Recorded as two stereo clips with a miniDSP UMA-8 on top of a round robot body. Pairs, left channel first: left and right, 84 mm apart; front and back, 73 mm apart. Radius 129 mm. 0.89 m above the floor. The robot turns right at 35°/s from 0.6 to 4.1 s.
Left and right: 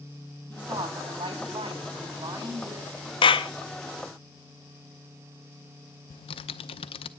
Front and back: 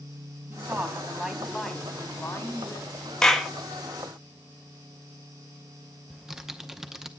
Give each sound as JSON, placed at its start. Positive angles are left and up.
{"t": 0.5, "sound": "a woman speaking", "azimuth_deg": -125, "distance_m": 5.0}
{"t": 3.2, "sound": "a clap", "azimuth_deg": 80, "distance_m": 1.0}
{"t": 6.1, "sound": "typing on a keyboard", "azimuth_deg": 95, "distance_m": 0.6}